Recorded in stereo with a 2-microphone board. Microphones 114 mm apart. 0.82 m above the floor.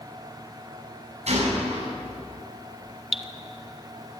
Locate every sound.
1.3 s a gunshot: 70° right (ahead or behind), 8.5 m
3.1 s dripping: 5° right (ahead or behind), 1.0 m